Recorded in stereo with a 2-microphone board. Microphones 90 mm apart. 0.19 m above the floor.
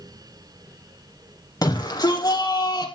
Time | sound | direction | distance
1.6 | a shout | 45° left (ahead or behind) | 6 m